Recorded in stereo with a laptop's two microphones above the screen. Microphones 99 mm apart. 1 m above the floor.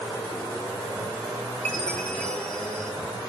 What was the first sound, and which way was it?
A chime, 10° left (ahead or behind).